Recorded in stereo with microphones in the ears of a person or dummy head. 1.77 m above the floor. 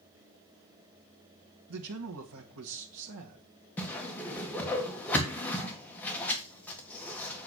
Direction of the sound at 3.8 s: 10° left (ahead or behind).